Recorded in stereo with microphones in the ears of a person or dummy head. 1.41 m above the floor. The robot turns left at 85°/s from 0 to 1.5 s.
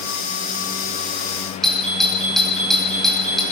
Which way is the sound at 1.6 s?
Centre (ahead or behind).